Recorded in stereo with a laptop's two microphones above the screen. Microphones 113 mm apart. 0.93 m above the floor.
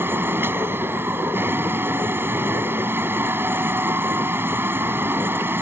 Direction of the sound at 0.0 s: 20° right (ahead or behind).